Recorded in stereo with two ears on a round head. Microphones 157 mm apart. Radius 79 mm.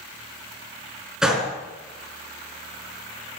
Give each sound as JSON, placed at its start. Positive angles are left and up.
{"t": 1.2, "sound": "a gunshot", "side_deg": -5, "distance_m": 3.5}